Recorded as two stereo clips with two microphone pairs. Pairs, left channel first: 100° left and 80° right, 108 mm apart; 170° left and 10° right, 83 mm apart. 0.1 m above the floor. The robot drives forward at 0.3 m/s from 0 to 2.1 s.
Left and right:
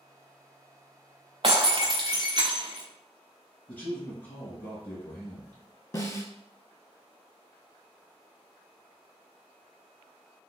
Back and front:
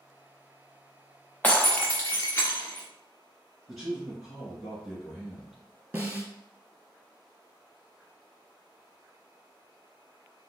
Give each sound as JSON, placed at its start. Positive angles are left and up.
{"t": 1.4, "sound": "breaking glass", "azimuth_deg": -115, "distance_m": 0.7}
{"t": 3.7, "sound": "a man speaking", "azimuth_deg": 75, "distance_m": 1.7}
{"t": 5.9, "sound": "a snare drum", "azimuth_deg": 55, "distance_m": 0.8}